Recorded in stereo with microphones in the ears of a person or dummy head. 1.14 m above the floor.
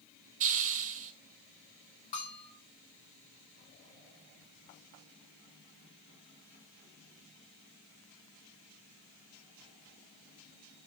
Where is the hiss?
40° right (ahead or behind), 1.3 m.